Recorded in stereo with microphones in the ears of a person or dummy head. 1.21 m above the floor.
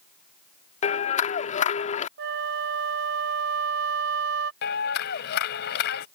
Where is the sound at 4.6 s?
60° left (ahead or behind).